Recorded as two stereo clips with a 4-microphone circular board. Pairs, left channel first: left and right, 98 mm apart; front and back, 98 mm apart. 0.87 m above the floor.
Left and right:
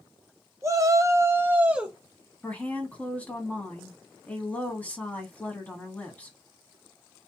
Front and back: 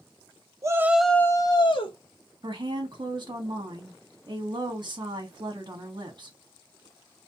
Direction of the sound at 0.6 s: 140° right.